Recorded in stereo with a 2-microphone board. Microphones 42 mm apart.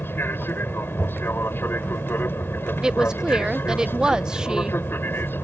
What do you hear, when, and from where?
0.0 s an aircraft: 65° left (ahead or behind)
2.8 s a woman speaking: 20° right (ahead or behind)